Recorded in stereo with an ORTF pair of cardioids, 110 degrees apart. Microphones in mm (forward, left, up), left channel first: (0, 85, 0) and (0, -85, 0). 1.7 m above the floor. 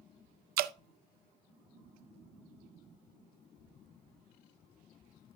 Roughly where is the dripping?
Ahead right.